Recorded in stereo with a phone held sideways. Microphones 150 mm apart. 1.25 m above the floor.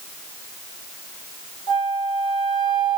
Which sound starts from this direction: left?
A flute, at 1.7 s.